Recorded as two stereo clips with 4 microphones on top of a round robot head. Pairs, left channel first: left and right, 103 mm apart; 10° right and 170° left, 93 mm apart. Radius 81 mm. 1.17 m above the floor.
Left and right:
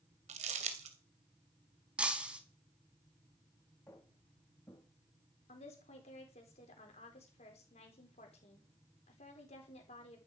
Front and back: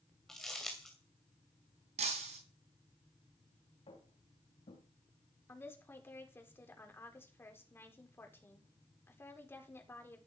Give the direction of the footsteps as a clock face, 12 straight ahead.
12 o'clock.